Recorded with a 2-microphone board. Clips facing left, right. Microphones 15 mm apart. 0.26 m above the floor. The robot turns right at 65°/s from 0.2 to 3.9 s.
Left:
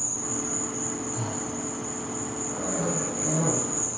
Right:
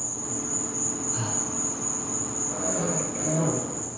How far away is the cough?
About 7 m.